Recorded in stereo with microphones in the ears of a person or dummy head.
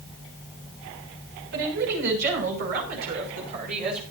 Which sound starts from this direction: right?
A woman speaking, at 1.5 s.